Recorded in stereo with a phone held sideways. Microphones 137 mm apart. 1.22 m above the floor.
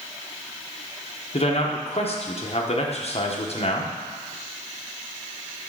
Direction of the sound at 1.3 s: 50° left (ahead or behind).